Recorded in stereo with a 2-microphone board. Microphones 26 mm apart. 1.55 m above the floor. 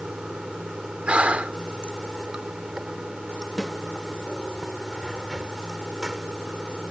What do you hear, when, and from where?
0.0 s running water: 30° right (ahead or behind)
1.1 s breathing: 50° right (ahead or behind)
3.6 s a snare drum: 5° left (ahead or behind)